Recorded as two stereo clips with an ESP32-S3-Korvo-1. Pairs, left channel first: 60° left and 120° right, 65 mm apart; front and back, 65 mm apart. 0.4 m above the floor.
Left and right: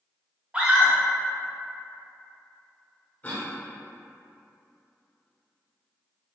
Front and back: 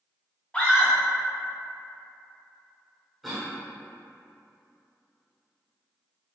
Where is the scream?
60° right, 1.0 m.